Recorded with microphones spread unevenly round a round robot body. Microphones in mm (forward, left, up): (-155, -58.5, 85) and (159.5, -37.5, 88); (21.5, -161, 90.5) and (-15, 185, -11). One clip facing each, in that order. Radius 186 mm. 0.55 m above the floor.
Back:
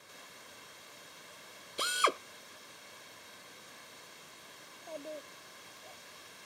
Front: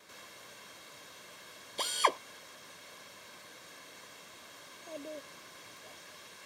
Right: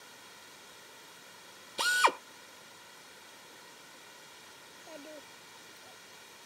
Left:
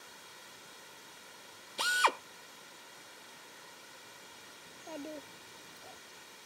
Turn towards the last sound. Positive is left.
turn(degrees=80)